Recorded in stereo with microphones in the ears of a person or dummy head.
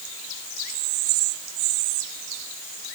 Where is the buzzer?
No buzzer in this recording.